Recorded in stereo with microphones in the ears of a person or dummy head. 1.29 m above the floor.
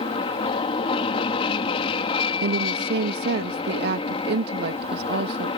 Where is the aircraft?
35° left (ahead or behind).